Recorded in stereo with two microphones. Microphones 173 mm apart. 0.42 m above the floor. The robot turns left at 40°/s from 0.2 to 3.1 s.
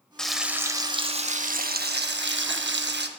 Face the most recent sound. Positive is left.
turn(degrees=-110)